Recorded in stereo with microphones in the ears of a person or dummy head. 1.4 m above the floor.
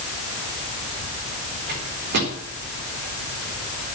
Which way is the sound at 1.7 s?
50° right (ahead or behind).